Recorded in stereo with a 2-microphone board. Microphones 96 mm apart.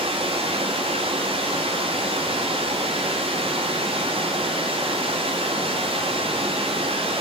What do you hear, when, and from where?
0.0 s running water: 85° right, 7.5 m